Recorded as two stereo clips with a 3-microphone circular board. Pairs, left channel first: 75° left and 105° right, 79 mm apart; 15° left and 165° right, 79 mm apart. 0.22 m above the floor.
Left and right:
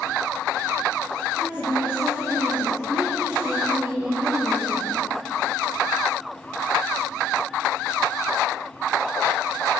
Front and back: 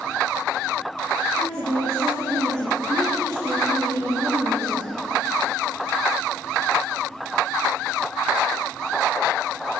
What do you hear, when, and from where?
1.4 s a woman speaking: 175° right, 6 m